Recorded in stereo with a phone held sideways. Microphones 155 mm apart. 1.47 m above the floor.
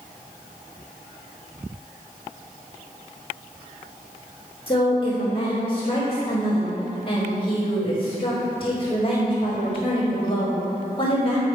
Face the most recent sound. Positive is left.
turn(degrees=35)  # may be behind; listen again after turning